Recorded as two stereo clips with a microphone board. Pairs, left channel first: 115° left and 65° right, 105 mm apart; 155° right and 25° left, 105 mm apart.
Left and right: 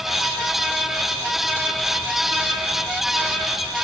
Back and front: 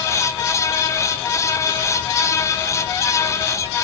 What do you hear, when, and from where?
Only background noise.